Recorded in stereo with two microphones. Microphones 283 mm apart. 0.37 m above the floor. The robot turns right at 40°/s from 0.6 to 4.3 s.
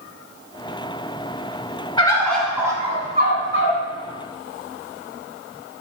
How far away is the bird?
About 0.6 m.